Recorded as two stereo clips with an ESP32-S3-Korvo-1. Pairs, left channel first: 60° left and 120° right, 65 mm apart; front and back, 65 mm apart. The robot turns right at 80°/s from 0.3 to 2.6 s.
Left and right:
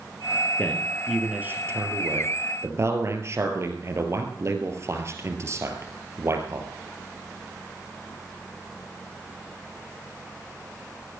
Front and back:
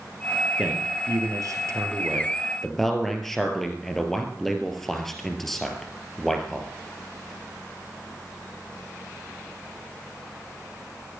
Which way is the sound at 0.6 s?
115° left.